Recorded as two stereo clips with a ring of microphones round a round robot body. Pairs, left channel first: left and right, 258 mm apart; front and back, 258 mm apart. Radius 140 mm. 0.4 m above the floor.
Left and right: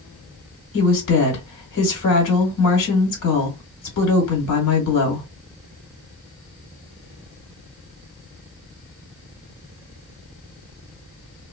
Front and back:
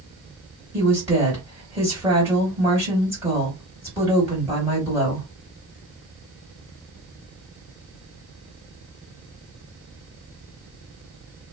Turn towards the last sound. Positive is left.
turn(degrees=95)